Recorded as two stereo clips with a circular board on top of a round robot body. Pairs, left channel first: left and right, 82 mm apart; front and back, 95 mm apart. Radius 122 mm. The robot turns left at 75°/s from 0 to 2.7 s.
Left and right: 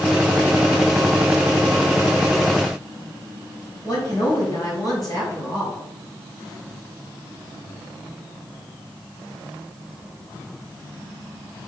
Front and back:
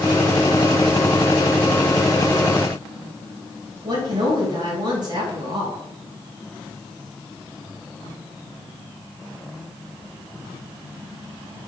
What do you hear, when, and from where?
3.8 s a woman speaking: 135° left, 4 m